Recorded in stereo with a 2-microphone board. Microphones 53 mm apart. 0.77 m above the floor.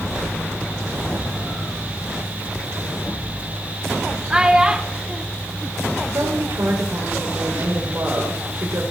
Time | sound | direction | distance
4.3 | a child speaking | 15° right (ahead or behind) | 0.9 m
6.1 | a woman speaking | 65° right (ahead or behind) | 3 m